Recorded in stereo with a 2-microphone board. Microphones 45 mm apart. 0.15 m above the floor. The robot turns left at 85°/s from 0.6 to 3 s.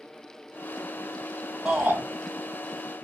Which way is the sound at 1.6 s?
40° right.